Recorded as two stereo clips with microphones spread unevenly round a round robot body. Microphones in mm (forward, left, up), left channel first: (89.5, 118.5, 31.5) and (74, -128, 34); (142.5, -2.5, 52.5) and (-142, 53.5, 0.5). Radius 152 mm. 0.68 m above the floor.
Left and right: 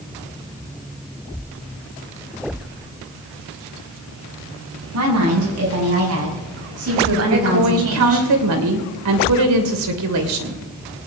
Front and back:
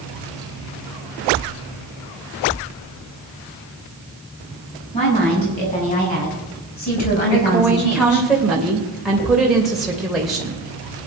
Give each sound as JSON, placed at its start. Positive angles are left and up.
{"t": 4.9, "sound": "a woman speaking", "azimuth_deg": -80, "distance_m": 7.0}
{"t": 7.3, "sound": "a woman speaking", "azimuth_deg": -105, "distance_m": 2.5}